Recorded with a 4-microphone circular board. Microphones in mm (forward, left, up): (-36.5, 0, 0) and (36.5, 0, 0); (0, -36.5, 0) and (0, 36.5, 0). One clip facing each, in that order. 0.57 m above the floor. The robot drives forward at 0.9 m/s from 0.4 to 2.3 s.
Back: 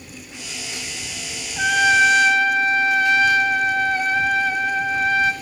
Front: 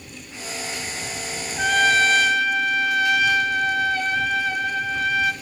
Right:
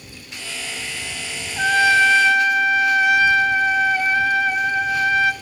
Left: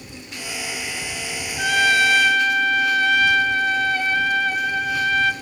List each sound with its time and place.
1.6 s a trumpet: 100° right, 1.2 m; by 5.3 s 150° right, 1.4 m